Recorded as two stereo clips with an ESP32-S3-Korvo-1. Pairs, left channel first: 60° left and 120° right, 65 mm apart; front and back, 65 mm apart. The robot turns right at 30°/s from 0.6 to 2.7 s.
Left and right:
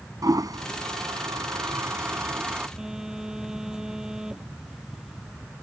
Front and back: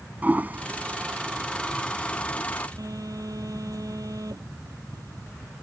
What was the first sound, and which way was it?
A toilet flushing, 120° right.